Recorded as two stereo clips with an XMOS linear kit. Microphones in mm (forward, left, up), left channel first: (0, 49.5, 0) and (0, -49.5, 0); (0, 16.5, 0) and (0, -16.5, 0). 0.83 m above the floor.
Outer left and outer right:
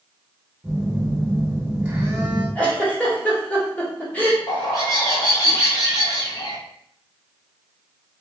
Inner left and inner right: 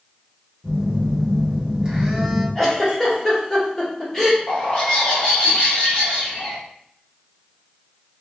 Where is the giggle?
15° left (ahead or behind), 1.6 m.